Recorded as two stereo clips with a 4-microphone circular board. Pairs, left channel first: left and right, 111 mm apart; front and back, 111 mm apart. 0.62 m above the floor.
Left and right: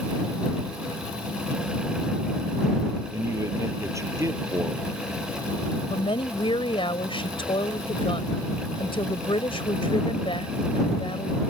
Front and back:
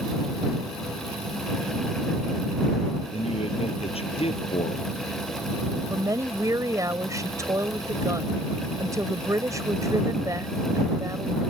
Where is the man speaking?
30° right.